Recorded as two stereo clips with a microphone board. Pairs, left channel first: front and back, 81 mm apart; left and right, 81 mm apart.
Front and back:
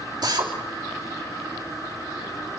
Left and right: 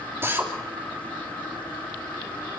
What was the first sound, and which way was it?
A drill, 150° right.